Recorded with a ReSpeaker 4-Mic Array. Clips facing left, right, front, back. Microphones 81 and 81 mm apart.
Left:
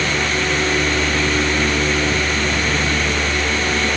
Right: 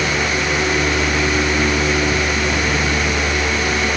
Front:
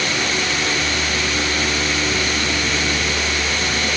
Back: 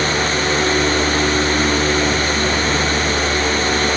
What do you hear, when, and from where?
Only background noise.